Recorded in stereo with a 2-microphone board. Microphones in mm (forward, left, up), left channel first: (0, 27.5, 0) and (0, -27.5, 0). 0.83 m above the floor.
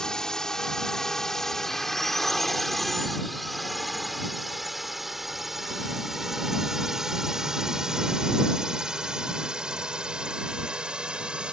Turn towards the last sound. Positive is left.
turn(degrees=-15)  # may be behind; listen again after turning